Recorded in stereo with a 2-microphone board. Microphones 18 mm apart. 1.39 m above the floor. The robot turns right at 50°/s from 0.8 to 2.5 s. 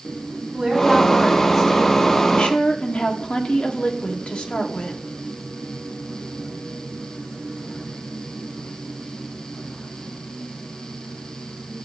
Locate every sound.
0.5 s a woman speaking: 25° right, 4.5 m; by 2.2 s 50° left, 4.5 m
2.3 s a woman speaking: 75° left (ahead or behind), 1.2 m; by 5.0 s 80° left, 1.2 m